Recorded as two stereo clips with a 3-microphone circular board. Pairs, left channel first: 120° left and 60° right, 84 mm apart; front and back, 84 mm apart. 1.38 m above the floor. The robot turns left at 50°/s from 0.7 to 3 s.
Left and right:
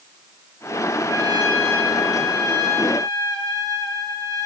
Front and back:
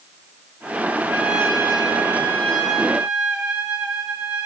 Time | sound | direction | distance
1.1 | a trumpet | 10° right | 8 m